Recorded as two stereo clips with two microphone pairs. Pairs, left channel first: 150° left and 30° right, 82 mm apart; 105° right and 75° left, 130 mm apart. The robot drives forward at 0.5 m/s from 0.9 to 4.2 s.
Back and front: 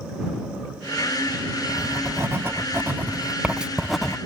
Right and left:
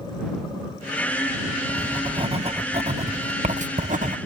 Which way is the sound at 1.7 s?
25° left.